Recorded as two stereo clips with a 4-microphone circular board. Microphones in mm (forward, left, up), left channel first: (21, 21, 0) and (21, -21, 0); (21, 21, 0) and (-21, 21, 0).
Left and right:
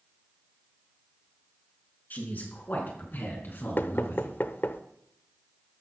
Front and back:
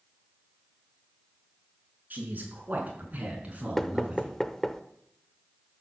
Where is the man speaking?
135° left, 5 m; by 4.3 s 120° left, 4 m.